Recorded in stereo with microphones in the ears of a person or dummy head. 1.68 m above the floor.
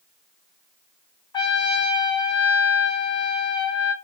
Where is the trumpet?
25° left (ahead or behind), 0.8 m.